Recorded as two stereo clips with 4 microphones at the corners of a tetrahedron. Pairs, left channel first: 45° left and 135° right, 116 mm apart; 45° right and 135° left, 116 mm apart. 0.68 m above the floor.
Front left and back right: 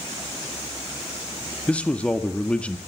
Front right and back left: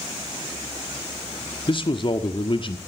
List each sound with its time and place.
1.7 s a man speaking: 30° right, 1.6 m